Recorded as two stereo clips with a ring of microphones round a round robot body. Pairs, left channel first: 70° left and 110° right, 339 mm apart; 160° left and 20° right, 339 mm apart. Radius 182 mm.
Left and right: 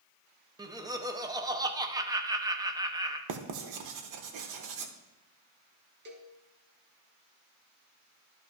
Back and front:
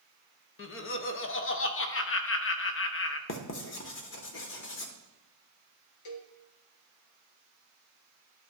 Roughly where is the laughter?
Behind.